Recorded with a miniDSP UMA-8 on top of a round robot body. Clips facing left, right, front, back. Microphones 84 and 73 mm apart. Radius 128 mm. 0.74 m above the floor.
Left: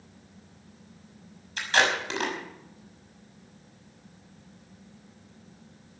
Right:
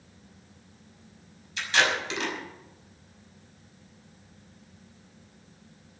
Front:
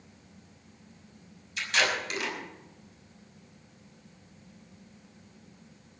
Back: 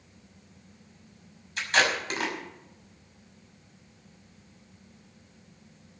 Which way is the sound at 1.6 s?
135° left.